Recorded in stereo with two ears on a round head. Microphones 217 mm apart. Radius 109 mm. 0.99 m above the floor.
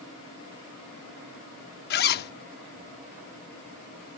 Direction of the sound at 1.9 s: 45° left (ahead or behind).